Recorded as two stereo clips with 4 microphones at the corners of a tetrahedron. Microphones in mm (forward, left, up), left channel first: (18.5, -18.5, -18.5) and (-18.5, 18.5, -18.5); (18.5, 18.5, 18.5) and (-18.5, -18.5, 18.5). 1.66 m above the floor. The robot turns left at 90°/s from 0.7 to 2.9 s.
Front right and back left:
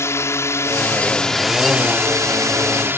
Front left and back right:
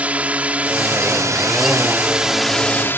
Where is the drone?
70° right; by 3.0 s 90° left.